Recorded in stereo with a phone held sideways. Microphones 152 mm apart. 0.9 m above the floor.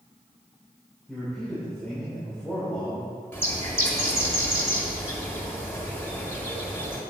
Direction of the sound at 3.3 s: 15° left (ahead or behind).